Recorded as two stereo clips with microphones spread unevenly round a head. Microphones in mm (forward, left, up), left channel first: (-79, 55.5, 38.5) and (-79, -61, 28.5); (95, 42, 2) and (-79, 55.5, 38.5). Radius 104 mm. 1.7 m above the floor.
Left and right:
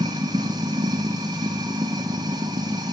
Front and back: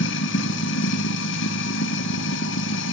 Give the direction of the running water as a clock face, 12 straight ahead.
1 o'clock.